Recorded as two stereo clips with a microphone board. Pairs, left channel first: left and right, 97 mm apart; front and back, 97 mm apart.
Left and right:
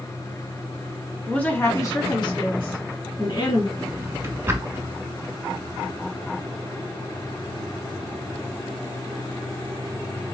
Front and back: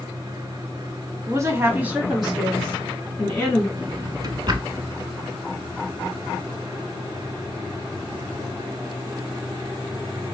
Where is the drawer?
150° right, 0.9 m.